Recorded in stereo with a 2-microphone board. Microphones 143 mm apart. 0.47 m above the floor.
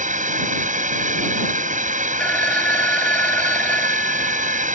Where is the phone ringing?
10° left (ahead or behind).